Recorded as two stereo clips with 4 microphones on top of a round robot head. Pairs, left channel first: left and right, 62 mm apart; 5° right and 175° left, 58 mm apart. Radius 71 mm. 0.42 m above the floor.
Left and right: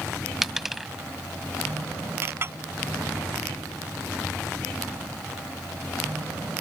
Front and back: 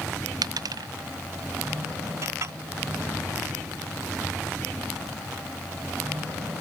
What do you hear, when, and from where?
0.4 s a dropped coin: 175° right
2.2 s a clink: 140° right